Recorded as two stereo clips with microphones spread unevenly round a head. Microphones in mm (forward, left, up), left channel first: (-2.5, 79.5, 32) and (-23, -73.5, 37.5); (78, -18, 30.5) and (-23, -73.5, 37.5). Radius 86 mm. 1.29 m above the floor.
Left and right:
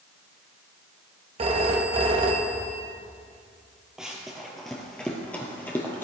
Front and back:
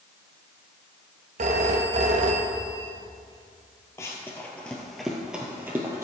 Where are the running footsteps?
15° right, 1.4 m; by 6.0 s 155° left, 1.5 m.